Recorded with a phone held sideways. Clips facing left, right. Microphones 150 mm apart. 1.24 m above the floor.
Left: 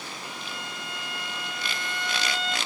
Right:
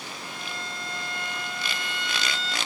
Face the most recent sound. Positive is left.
turn(degrees=15)  # may be behind; listen again after turning